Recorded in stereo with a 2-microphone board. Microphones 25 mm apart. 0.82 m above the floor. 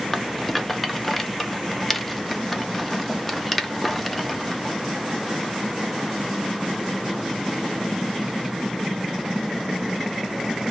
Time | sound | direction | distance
0.1 | a rattle | centre (ahead or behind) | 0.6 m